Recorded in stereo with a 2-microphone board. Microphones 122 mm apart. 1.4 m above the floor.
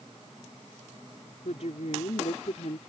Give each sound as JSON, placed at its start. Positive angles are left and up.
{"t": 1.4, "sound": "a woman speaking", "side_deg": 65}